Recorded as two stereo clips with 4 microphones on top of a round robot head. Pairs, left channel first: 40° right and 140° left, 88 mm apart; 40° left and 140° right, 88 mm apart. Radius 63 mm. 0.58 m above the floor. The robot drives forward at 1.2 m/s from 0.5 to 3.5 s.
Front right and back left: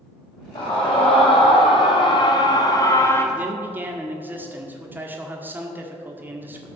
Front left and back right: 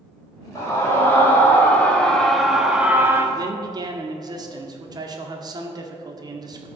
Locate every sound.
0.6 s a scream: 20° right, 3.5 m; by 3.3 s 90° right, 1.7 m
3.4 s a man speaking: 155° right, 1.8 m; by 6.7 s 160° right, 1.9 m